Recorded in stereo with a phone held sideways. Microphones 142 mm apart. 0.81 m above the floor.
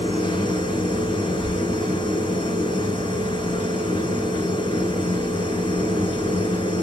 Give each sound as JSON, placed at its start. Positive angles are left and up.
{"t": 0.0, "sound": "a machine running", "side_deg": 30, "distance_m": 4.0}